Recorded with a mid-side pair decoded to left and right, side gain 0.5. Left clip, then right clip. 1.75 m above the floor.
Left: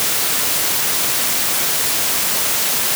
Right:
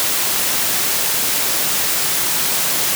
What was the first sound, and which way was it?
Only background noise.